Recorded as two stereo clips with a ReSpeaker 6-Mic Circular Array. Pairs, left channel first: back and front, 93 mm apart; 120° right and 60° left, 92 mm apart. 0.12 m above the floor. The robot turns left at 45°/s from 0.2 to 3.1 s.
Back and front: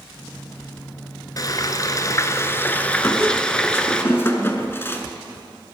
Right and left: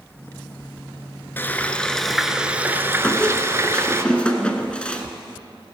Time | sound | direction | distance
1.4 | frying | 175° right | 0.8 m
3.0 | a squeak | straight behind | 1.0 m